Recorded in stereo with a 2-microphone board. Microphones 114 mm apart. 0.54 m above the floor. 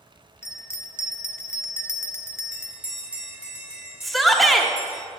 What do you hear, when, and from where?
0.4 s a bell: 20° left (ahead or behind), 0.5 m
2.5 s a bell: 10° right (ahead or behind), 2 m
4.0 s a shout: centre (ahead or behind), 0.9 m